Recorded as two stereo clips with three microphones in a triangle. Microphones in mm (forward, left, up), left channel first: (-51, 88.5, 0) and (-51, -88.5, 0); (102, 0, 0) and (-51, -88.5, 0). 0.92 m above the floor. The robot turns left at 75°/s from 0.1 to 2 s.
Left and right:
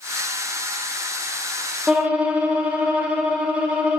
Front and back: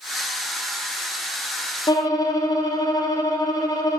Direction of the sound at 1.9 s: 5° right.